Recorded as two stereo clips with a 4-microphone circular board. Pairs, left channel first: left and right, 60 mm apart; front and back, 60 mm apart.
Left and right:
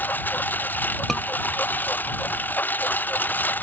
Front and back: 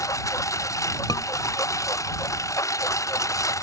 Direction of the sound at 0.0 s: 30° left.